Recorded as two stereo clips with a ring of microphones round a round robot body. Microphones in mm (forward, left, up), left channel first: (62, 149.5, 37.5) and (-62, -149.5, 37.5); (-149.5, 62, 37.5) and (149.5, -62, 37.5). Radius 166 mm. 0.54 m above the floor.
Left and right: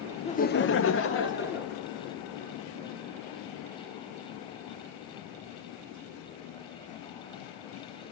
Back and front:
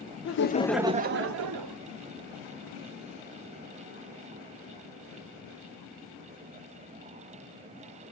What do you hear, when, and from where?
0.2 s laughter: 135° left, 0.9 m; by 1.8 s 5° left, 1.7 m